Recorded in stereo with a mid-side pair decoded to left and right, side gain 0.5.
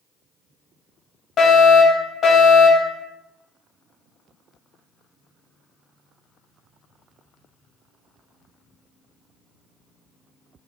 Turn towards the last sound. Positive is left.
turn(degrees=50)